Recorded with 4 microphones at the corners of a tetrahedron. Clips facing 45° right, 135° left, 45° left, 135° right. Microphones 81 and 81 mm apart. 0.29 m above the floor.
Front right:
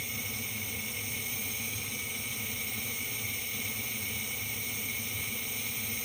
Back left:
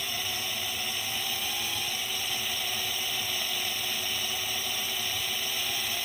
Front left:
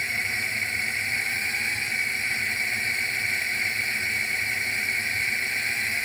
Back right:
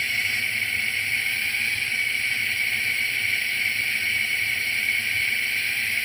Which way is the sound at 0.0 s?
110° left.